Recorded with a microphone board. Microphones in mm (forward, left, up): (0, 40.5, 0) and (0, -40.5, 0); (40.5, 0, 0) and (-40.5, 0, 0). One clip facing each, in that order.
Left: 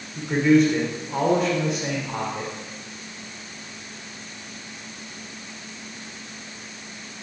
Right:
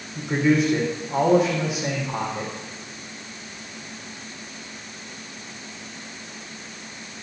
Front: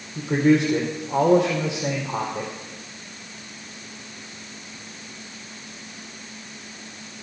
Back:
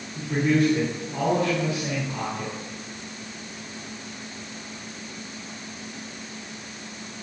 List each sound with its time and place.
0.1 s a man speaking: 5° right, 3.5 m